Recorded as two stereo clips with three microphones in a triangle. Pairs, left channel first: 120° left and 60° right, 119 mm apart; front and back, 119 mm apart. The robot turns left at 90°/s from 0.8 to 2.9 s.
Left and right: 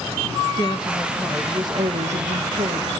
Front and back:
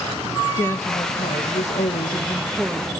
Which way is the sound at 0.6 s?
70° left.